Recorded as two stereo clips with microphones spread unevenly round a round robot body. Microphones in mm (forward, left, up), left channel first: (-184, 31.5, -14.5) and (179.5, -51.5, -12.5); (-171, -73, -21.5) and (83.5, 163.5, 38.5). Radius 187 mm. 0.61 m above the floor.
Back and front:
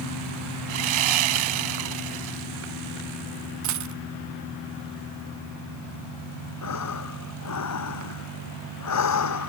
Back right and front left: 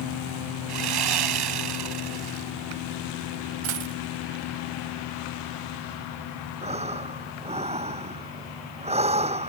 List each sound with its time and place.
0.7 s sawing: 5° left
3.6 s a dropped coin: 35° left
6.6 s breathing: 115° left